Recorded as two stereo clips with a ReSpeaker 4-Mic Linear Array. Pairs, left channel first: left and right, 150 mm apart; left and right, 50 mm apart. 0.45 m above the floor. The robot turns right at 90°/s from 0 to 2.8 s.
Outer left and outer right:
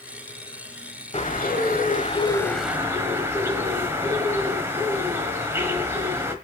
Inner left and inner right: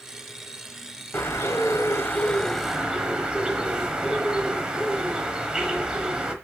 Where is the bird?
45° left, 1.2 m; by 6.3 s 165° right, 1.2 m.